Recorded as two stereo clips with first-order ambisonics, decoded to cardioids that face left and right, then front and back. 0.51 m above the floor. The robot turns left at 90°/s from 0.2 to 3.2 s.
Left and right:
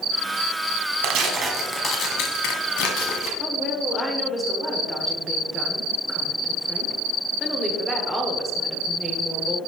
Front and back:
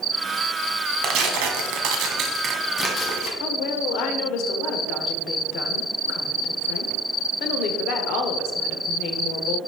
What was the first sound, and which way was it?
Tearing paper, 125° right.